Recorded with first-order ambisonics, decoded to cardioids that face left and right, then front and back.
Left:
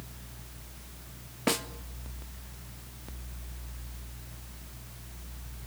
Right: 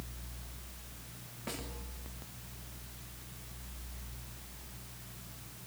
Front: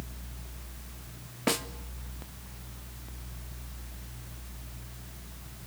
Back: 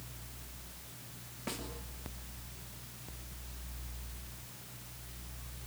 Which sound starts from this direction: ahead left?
A snare drum, at 1.5 s.